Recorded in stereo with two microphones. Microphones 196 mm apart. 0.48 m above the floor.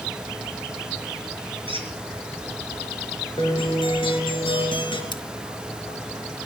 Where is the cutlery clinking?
25° left (ahead or behind), 0.7 m.